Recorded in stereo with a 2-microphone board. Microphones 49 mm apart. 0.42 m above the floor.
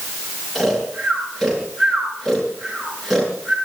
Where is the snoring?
Centre (ahead or behind), 5.5 m.